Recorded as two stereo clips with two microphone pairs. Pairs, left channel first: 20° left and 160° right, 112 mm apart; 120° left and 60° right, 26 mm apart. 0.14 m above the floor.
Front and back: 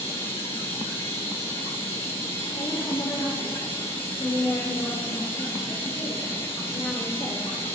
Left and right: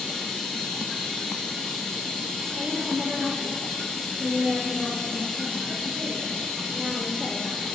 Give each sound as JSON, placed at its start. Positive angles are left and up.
{"t": 0.0, "sound": "running water", "azimuth_deg": 55, "distance_m": 4.5}
{"t": 2.5, "sound": "a woman speaking", "azimuth_deg": -20, "distance_m": 3.0}